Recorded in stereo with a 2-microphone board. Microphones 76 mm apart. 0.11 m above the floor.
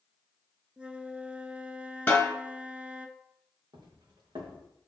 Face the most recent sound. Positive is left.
turn(degrees=-80)